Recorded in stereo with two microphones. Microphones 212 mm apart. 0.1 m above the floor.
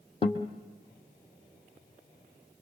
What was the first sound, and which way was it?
A guitar, 30° left (ahead or behind).